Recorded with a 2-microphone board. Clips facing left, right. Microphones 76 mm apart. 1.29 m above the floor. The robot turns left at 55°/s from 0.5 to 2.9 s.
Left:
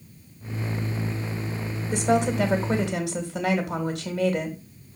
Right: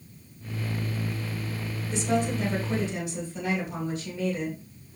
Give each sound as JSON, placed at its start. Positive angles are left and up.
{"t": 1.9, "sound": "a woman speaking", "azimuth_deg": 125, "distance_m": 2.5}